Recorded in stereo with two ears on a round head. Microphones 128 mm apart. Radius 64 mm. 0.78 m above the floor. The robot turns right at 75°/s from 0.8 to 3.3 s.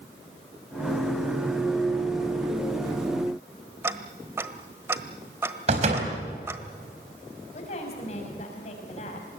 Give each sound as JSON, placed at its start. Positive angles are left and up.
{"t": 3.8, "sound": "ticking", "side_deg": -20, "distance_m": 1.2}
{"t": 5.7, "sound": "a door slam", "side_deg": -50, "distance_m": 4.5}
{"t": 7.5, "sound": "a woman speaking", "side_deg": 55, "distance_m": 5.5}